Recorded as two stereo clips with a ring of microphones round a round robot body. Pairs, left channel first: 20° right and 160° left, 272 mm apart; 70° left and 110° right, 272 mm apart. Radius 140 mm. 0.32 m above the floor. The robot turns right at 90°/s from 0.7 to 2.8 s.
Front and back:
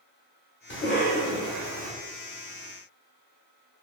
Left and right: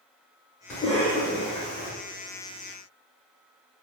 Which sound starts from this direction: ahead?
A cough, at 0.7 s.